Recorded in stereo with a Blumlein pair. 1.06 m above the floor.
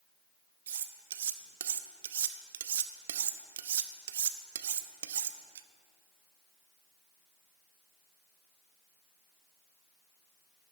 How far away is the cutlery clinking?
About 0.5 m.